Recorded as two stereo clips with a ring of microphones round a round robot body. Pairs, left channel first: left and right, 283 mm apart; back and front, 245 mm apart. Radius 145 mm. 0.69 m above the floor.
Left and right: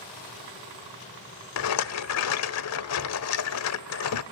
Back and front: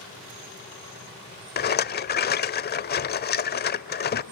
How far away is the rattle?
About 1.2 m.